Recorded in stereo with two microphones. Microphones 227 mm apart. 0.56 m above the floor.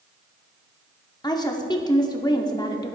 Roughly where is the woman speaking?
Centre.